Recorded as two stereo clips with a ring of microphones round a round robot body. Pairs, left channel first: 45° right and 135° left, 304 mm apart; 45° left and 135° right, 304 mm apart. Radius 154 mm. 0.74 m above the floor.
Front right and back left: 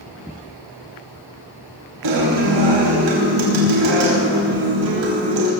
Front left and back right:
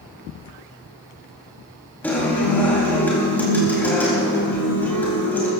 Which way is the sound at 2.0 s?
130° left.